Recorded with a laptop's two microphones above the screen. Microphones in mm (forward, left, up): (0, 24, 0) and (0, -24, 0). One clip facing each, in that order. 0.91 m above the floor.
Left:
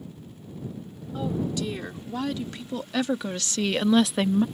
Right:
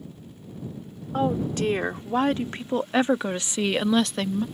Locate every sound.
1.1 s a woman speaking: 50° right (ahead or behind); by 4.5 s 20° left (ahead or behind)